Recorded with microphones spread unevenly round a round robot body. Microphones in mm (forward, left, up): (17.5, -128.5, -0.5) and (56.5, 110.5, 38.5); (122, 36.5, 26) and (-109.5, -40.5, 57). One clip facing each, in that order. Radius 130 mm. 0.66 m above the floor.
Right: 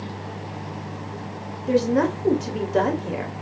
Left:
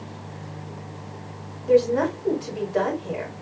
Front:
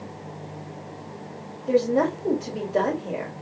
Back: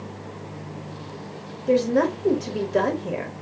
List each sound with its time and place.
1.7 s a woman speaking: 95° right, 1.7 m